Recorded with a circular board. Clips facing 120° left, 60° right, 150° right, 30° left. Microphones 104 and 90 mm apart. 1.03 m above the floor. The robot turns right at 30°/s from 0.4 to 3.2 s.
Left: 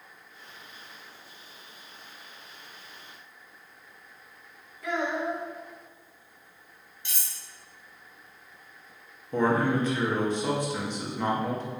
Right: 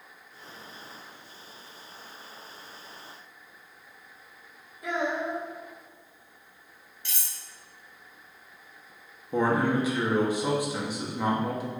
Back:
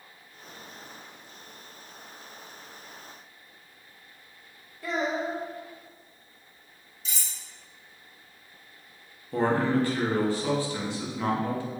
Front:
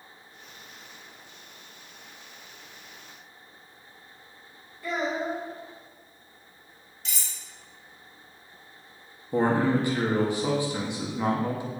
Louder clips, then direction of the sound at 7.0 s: Even, even; 50° left.